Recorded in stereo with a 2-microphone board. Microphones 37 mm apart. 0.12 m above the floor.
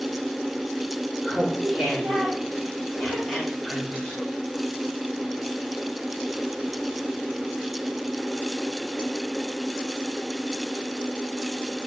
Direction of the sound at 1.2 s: 15° right (ahead or behind).